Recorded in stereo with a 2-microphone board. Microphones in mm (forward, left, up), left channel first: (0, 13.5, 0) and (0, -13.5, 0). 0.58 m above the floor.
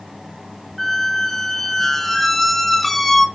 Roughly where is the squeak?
Centre.